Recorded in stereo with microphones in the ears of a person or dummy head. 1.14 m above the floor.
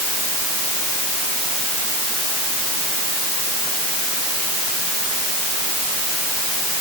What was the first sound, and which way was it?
Only background noise.